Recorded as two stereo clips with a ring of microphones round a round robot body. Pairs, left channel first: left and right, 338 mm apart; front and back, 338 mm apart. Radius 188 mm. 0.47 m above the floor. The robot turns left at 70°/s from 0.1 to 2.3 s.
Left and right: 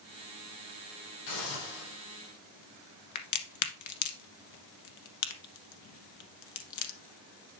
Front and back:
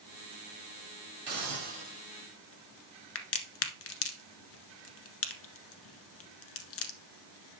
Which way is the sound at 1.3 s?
145° left.